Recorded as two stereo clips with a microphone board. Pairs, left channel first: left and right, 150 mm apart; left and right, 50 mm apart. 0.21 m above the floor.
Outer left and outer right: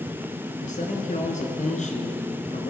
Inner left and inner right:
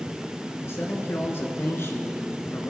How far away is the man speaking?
About 2 m.